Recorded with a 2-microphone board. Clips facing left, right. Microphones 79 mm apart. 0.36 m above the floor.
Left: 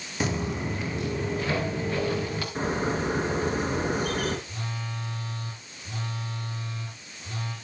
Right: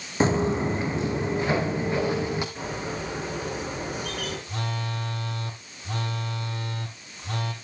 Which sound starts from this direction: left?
A bird, at 2.5 s.